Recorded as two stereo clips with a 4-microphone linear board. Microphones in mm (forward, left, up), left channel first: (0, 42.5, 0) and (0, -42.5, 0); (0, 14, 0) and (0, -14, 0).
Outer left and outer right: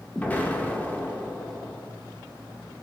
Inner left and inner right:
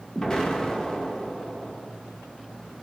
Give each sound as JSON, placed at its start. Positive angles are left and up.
{"t": 0.1, "sound": "an explosion", "side_deg": 20, "distance_m": 0.5}